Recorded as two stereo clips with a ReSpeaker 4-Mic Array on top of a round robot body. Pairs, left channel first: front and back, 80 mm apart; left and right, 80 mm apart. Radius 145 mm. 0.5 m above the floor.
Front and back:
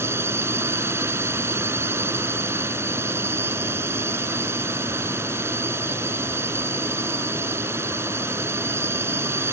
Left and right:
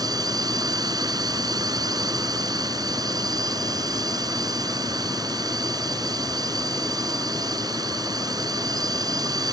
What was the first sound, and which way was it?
A drone, 125° right.